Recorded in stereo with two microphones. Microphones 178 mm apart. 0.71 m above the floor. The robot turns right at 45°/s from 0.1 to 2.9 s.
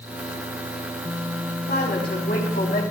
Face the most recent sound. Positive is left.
turn(degrees=120)